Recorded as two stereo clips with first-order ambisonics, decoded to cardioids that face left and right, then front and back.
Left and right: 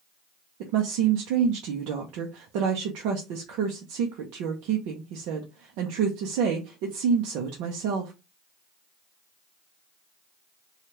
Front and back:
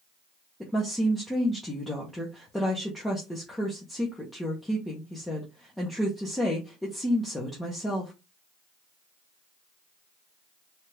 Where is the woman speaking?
85° right, 0.7 m.